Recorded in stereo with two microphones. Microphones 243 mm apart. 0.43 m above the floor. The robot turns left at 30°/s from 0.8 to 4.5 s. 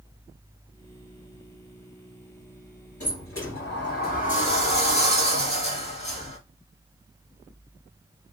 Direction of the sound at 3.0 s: 70° left.